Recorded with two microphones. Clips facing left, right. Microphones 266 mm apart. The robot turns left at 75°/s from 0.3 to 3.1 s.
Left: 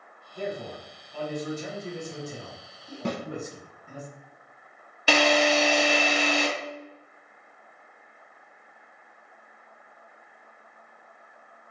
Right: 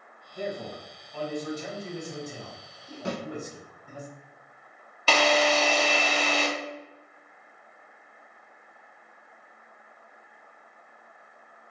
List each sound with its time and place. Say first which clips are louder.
0.3 s a man speaking: left 1 dB; 15° right (ahead or behind), 1.4 m; by 4.0 s 5° left (ahead or behind), 1.4 m
3.0 s a snare drum: left 2 dB; 65° left (ahead or behind), 0.7 m
5.1 s a drill: left 2 dB; 15° left (ahead or behind), 0.6 m